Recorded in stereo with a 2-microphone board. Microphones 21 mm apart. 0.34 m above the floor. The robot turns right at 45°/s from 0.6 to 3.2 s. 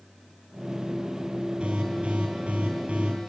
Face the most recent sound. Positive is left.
turn(degrees=-55)